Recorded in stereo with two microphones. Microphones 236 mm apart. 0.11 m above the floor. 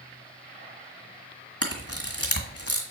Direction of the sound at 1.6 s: 75° left (ahead or behind).